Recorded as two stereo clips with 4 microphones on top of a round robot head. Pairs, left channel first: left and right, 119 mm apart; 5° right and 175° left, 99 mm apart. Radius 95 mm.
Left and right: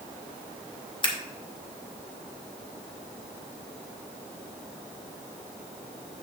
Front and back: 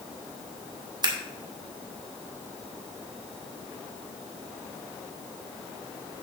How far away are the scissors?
About 1.9 m.